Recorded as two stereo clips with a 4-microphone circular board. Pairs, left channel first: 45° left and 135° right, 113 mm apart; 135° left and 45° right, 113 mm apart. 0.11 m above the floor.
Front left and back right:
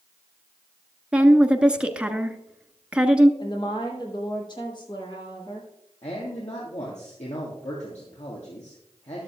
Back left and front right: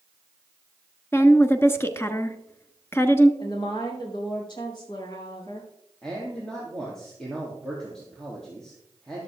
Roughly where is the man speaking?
Ahead left.